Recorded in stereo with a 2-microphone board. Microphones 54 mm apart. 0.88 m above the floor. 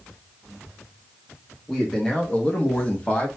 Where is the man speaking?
10° left (ahead or behind), 1.0 m; by 3.3 s 25° left (ahead or behind), 1.0 m.